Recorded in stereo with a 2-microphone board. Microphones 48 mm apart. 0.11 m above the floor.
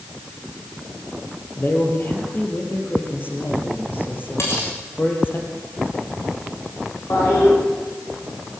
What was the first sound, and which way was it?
A man speaking, 45° left (ahead or behind).